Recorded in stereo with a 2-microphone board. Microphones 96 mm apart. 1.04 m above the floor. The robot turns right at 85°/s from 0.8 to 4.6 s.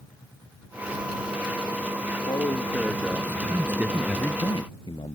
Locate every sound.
2.1 s a man speaking: 100° left; by 4.4 s 65° right
3.5 s a man speaking: 40° right; by 5.2 s 50° left